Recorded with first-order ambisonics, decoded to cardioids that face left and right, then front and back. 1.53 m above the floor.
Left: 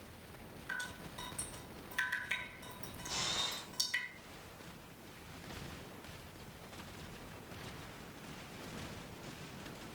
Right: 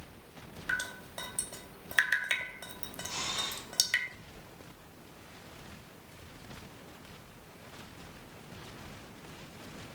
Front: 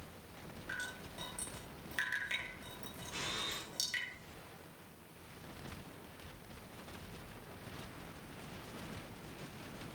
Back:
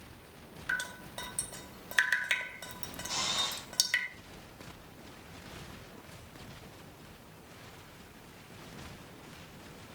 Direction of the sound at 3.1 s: 175° left.